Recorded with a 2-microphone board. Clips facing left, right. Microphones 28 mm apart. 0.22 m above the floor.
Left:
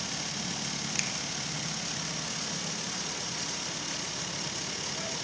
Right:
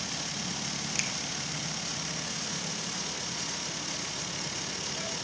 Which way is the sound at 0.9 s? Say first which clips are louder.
Right 1 dB; 5° left (ahead or behind).